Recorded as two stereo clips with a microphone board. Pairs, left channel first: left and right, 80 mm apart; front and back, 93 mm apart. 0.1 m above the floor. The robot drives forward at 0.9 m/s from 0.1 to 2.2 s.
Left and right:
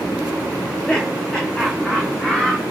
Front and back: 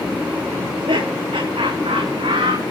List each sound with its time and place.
0.6 s laughter: 175° left, 7.5 m